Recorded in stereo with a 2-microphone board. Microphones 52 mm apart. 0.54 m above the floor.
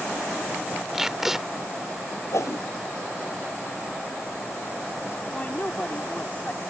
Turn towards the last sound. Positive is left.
turn(degrees=30)  # may be behind; listen again after turning